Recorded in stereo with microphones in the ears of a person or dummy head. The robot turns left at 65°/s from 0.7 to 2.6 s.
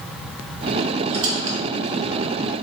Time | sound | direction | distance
1.1 | a squeak | 30° right (ahead or behind) | 0.7 m